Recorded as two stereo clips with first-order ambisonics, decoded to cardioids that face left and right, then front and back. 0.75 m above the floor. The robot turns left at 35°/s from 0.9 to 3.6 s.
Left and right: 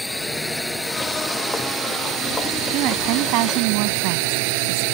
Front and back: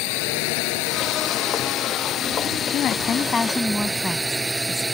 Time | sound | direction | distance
0.0 | a drone | straight ahead | ?
2.7 | a woman speaking | 50° right | ?